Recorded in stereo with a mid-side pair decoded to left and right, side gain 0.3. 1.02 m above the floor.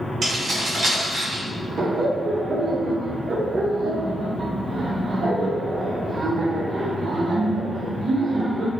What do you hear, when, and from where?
0.2 s keys jangling: 70° right, 1.1 m
1.8 s laughter: 65° right, 0.5 m